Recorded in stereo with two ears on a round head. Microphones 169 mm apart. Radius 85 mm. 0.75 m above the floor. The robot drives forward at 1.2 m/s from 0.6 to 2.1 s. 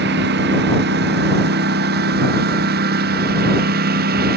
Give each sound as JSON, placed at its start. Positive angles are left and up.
{"t": 0.0, "sound": "a lawn mower", "side_deg": -65}